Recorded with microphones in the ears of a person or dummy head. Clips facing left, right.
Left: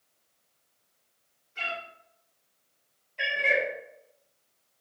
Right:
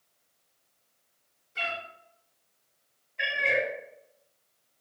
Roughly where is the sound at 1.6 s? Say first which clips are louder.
Right 2 dB; right.